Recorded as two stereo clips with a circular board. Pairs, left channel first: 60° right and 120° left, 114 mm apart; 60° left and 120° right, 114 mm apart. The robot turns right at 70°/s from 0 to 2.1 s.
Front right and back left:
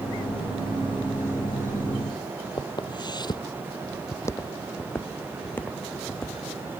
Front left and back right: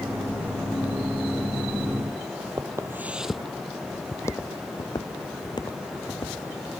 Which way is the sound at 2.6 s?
85° right.